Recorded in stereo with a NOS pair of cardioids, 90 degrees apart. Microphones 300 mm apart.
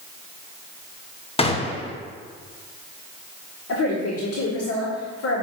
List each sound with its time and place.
1.4 s a gunshot: 20° left, 1.5 m
3.7 s a woman speaking: 55° left, 2.5 m